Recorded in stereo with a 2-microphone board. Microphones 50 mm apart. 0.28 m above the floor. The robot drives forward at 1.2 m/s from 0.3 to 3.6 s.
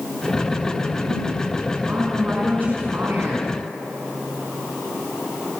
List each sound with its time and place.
1.9 s a woman speaking: 30° right (ahead or behind), 4 m; by 3.5 s 50° right (ahead or behind), 2.5 m